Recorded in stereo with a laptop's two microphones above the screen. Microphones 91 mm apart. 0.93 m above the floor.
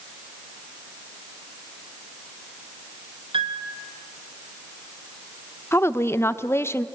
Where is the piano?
75° right (ahead or behind), 2.5 m.